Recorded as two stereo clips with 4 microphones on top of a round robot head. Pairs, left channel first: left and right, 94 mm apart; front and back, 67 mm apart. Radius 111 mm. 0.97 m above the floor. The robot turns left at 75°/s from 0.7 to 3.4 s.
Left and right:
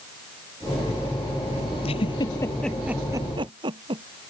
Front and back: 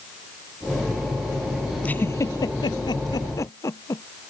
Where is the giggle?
70° left; by 4.0 s 50° right.